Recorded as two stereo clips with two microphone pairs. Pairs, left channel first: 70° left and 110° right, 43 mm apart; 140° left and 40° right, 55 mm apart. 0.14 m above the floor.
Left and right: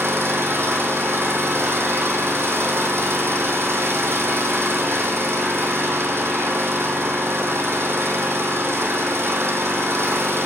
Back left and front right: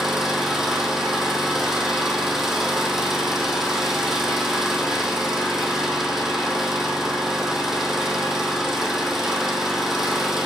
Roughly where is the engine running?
Behind right.